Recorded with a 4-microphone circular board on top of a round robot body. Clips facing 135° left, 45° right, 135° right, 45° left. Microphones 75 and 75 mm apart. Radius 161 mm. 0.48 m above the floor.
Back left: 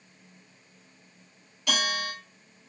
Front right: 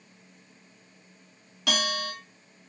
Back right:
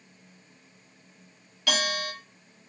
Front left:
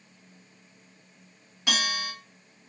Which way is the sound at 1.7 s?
25° right.